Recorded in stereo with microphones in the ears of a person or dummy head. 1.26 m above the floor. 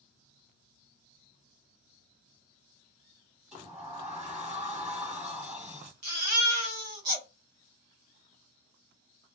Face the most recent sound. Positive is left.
turn(degrees=-45)  # may be behind; listen again after turning